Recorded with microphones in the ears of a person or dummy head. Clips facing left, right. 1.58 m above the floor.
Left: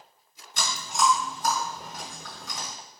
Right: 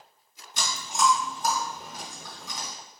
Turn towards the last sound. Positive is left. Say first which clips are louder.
# even
turn(degrees=-10)  # may be behind; listen again after turning